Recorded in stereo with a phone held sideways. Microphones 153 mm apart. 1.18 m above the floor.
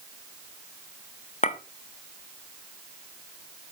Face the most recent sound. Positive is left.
turn(degrees=50)  # may be behind; listen again after turning